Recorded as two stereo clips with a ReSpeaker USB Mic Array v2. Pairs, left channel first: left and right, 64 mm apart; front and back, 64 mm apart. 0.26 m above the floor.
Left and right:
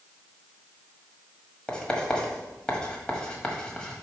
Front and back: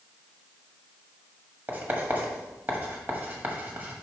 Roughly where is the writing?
Behind left.